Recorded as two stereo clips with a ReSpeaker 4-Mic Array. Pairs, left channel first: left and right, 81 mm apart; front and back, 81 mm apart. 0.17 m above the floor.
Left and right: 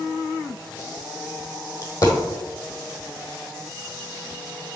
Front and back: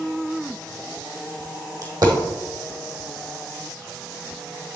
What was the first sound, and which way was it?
A dropped coin, 135° left.